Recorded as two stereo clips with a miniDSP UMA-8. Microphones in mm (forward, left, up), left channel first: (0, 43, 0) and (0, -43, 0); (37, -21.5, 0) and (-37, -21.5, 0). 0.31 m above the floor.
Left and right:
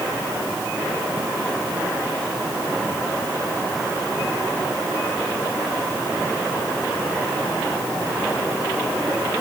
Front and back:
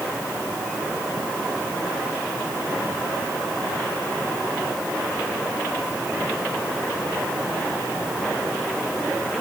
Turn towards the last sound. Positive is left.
No sound to turn to.